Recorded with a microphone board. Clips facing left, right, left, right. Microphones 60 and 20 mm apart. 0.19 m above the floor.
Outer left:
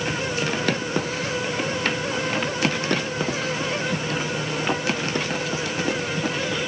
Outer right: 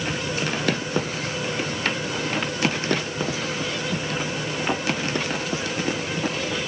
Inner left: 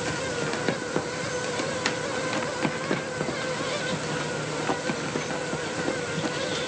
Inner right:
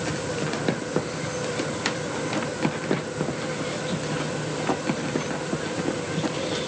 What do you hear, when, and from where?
Only background noise.